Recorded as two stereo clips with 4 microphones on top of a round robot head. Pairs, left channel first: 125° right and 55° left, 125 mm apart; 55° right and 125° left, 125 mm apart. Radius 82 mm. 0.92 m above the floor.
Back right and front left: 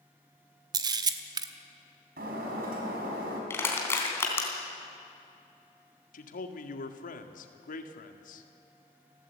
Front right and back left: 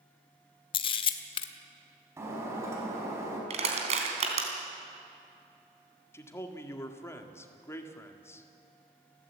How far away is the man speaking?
About 1.9 m.